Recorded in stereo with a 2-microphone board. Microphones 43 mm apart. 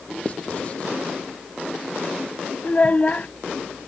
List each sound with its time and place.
0.2 s writing: 30° left (ahead or behind)
2.6 s a child speaking: 35° left (ahead or behind)